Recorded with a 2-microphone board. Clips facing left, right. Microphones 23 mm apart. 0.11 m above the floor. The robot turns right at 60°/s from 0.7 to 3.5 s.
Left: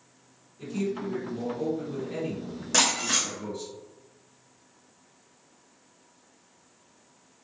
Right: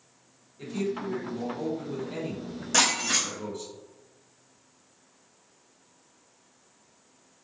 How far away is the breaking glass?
About 1.3 m.